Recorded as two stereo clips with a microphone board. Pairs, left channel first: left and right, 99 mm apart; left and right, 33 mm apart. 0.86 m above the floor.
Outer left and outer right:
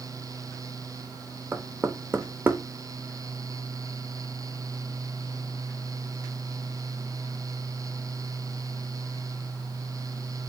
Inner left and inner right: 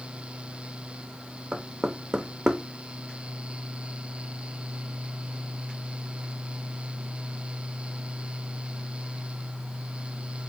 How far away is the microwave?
I don't hear a microwave.